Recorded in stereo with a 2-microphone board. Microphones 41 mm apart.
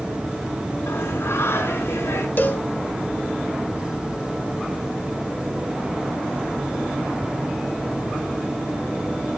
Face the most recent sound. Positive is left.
turn(degrees=50)  # may be behind; listen again after turning